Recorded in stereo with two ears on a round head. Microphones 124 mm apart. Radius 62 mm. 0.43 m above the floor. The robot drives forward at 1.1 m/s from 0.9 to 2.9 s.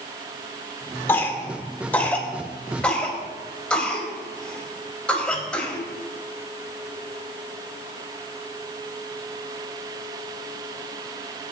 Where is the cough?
15° left (ahead or behind), 1.3 m; by 5.8 s 10° left (ahead or behind), 2.5 m.